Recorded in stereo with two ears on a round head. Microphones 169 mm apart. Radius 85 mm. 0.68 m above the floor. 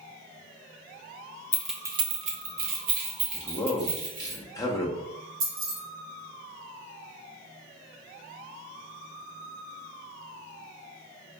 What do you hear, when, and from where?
1.5 s keys jangling: 15° left (ahead or behind), 0.5 m; by 4.3 s 70° right (ahead or behind), 2.5 m
3.3 s a man speaking: 20° left (ahead or behind), 0.8 m
5.4 s keys jangling: 80° right, 1.8 m